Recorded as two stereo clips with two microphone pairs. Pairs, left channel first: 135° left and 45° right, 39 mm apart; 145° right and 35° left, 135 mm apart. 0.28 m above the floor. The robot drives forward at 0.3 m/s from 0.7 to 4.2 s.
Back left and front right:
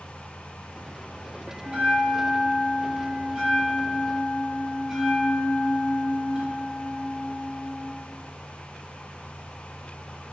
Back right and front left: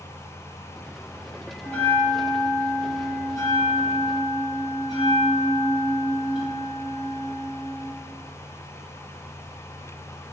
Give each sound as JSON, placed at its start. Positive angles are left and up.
{"t": 1.6, "sound": "a bell", "azimuth_deg": -85, "distance_m": 1.8}